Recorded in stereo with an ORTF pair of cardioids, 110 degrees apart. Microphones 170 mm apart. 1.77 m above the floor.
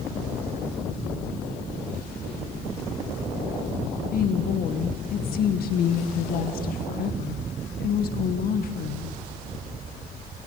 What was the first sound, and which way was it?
A woman speaking, 65° left.